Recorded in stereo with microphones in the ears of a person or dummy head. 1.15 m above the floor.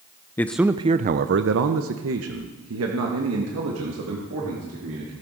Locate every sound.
0.4 s a man speaking: 10° left (ahead or behind), 0.5 m; by 5.1 s 75° right (ahead or behind), 3 m